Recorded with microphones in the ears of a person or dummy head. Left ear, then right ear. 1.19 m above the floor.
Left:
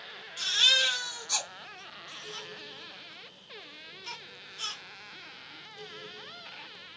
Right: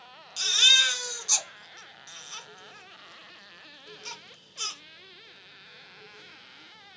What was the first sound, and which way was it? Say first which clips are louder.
A baby crying: right 4 dB; 90° right.